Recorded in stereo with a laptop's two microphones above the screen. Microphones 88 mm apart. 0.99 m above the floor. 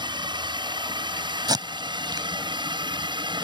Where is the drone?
60° right (ahead or behind).